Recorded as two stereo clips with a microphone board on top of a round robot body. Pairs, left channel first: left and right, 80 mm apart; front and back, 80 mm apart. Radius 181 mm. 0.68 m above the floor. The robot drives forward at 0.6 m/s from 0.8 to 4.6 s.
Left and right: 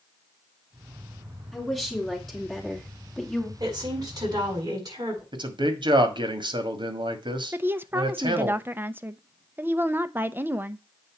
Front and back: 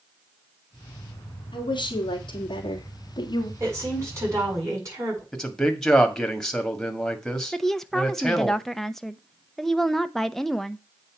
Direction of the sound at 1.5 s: 5° left.